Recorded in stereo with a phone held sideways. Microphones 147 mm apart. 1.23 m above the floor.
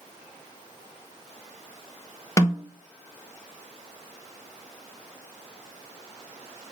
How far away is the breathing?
No breathing in this recording.